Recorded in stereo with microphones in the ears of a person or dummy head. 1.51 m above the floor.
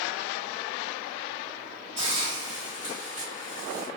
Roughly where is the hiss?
Left.